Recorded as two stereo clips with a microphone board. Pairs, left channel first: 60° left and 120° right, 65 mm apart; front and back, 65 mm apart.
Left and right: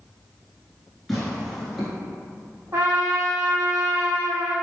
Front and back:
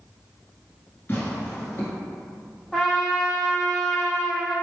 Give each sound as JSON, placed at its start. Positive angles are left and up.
{"t": 1.1, "sound": "tearing paper", "azimuth_deg": -25, "distance_m": 1.3}
{"t": 2.7, "sound": "a trumpet", "azimuth_deg": -80, "distance_m": 1.6}